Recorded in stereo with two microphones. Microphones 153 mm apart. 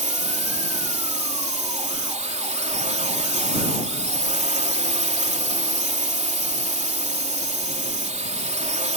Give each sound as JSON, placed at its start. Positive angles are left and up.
{"t": 0.0, "sound": "a drone", "side_deg": -50}